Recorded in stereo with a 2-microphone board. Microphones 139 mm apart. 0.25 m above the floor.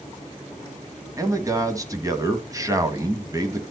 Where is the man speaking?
25° right (ahead or behind), 1.5 m.